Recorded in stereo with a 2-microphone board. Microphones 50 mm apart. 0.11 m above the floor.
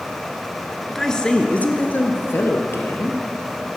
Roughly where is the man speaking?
Centre.